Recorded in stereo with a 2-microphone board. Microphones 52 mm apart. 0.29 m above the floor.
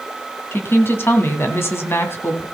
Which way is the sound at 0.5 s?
45° left (ahead or behind).